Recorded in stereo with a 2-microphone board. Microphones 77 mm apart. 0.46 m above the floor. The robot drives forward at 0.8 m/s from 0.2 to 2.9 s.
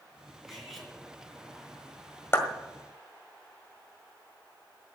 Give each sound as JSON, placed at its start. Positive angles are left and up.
{"t": 0.5, "sound": "cutlery clinking", "side_deg": 0, "distance_m": 4.5}
{"t": 2.3, "sound": "a clap", "side_deg": 35, "distance_m": 1.6}